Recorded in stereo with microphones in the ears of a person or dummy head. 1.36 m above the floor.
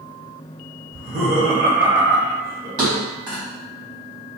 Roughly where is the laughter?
Right.